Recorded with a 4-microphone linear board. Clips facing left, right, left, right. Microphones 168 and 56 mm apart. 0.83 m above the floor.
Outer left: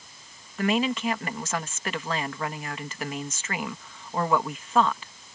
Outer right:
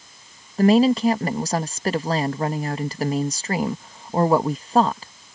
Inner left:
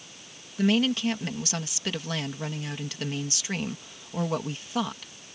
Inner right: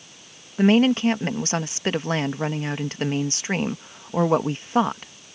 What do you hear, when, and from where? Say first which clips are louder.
0.6 s a woman speaking: outer right 10 dB, inner right 7 dB; 35° right (ahead or behind)